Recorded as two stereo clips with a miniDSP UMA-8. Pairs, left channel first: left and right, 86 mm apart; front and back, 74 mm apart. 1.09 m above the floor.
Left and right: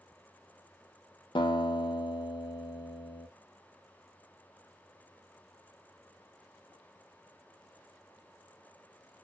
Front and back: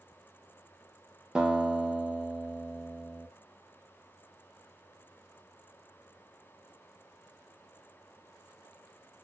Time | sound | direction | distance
1.4 | a guitar | 100° left | 0.6 m